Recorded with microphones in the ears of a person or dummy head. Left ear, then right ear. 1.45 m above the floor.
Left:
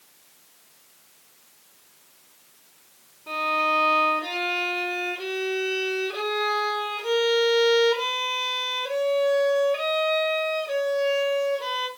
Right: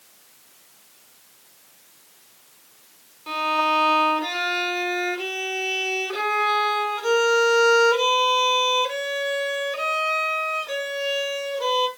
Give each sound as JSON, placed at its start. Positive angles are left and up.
{"t": 3.3, "sound": "a violin", "side_deg": -80, "distance_m": 4.0}